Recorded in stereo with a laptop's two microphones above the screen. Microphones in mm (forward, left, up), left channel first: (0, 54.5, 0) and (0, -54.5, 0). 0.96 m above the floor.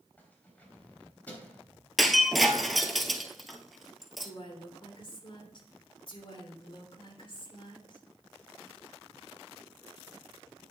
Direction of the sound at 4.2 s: 50° left (ahead or behind).